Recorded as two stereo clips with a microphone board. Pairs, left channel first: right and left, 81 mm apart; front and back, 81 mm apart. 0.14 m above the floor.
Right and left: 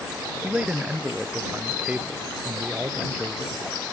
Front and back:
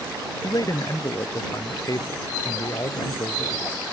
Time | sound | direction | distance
0.4 | a man speaking | 20° left | ?